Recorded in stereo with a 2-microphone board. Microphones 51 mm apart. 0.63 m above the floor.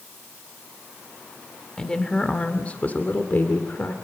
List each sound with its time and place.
1.8 s a woman speaking: 15° left (ahead or behind), 2 m; by 3.9 s 50° left (ahead or behind), 2 m